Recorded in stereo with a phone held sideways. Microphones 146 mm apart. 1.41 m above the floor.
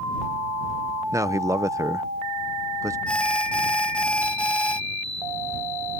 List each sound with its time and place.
1.1 s a man speaking: 20° right (ahead or behind)
3.1 s an alarm: 5° left (ahead or behind)